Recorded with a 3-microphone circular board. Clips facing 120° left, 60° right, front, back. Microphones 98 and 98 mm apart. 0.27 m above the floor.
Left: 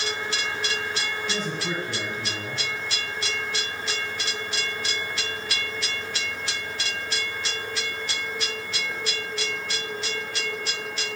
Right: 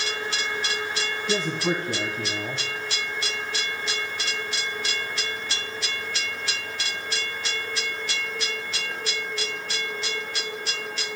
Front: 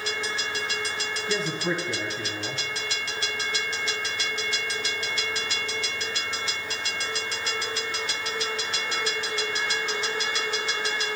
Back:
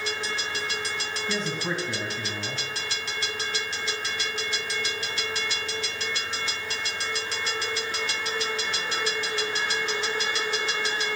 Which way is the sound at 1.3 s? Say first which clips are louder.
Right 7 dB, front 2 dB; 85° right.